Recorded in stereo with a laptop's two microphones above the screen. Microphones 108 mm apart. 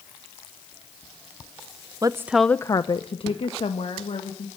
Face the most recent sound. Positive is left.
turn(degrees=70)  # may be behind; listen again after turning